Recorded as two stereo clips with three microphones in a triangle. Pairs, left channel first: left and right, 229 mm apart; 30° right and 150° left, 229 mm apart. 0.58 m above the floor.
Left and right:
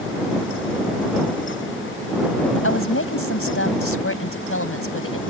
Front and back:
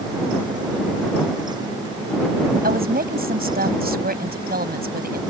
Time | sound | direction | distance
2.6 | a woman speaking | 105° left | ?